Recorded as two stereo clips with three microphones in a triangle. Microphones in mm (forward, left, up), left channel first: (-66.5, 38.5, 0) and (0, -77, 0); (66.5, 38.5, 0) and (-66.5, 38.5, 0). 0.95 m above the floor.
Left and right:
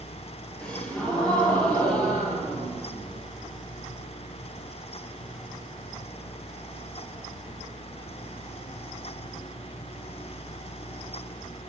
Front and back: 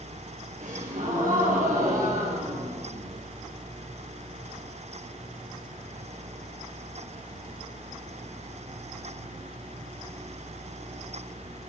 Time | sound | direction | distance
0.6 | a gasp | 155° right | 8.5 m